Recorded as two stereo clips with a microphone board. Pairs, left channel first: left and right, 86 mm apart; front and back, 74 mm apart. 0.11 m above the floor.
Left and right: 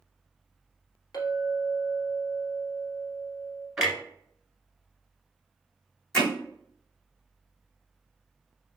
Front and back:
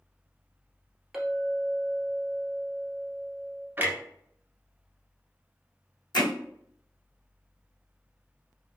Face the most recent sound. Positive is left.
turn(degrees=5)